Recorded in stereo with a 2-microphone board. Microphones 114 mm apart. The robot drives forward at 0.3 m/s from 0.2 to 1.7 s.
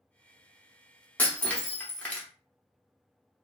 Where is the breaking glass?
15° left (ahead or behind), 0.7 m; by 2.3 s 10° left (ahead or behind), 0.8 m.